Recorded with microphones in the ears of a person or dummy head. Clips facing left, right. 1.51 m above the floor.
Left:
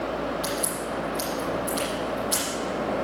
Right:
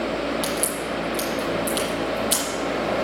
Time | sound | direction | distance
0.4 | a crack | 60° right (ahead or behind) | 6.5 m